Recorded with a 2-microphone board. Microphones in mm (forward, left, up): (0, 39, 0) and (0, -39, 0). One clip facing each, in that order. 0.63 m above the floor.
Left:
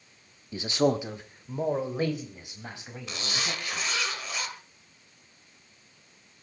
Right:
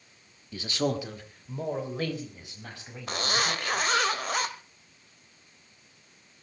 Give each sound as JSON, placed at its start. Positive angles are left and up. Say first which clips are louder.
{"t": 0.5, "sound": "a man speaking", "louder": "left 4 dB", "side_deg": 20, "distance_m": 1.2}
{"t": 3.1, "sound": "a zipper", "louder": "right 6 dB", "side_deg": -55, "distance_m": 1.7}